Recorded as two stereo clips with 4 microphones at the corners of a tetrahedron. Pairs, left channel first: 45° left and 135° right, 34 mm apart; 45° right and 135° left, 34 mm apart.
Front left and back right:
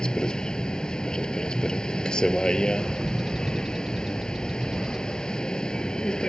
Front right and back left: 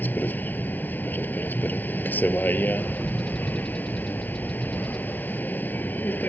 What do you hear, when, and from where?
0.0 s a vehicle: 20° right
2.8 s a bird: 60° right